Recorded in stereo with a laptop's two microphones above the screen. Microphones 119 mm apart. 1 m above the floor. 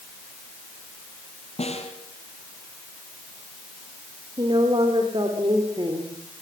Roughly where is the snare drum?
Left.